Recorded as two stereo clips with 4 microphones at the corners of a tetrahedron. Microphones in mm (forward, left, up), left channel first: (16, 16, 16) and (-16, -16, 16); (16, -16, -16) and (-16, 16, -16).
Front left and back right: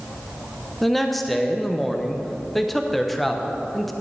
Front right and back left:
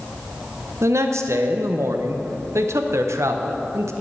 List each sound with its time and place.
0.8 s a man speaking: 130° left, 0.6 m